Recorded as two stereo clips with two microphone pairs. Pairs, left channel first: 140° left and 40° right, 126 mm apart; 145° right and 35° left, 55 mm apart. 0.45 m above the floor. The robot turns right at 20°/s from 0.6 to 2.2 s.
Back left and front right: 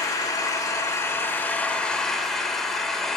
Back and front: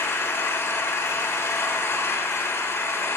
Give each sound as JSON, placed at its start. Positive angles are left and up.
{"t": 0.0, "sound": "an engine running", "azimuth_deg": -165, "distance_m": 1.3}